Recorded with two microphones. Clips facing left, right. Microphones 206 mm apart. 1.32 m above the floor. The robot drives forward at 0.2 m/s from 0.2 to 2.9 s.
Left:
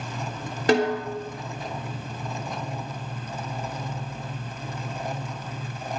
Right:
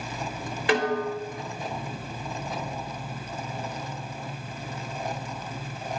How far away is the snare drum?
About 3 m.